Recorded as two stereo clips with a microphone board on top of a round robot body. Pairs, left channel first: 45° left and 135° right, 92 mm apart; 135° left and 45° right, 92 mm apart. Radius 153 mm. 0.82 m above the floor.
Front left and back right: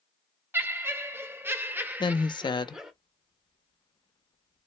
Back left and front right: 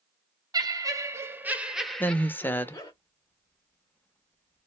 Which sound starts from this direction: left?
A woman speaking, at 2.0 s.